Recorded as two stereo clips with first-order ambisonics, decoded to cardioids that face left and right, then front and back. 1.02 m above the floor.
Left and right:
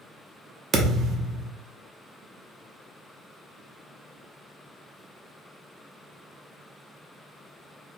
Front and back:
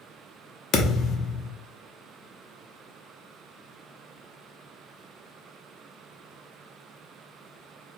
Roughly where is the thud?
Ahead right.